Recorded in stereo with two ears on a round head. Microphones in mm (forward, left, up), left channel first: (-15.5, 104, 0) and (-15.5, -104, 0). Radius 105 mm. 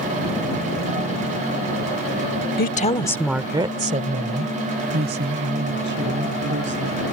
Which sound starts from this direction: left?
A woman speaking, at 2.6 s.